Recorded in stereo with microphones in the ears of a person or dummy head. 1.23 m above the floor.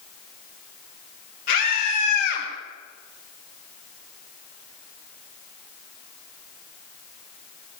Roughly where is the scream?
Left.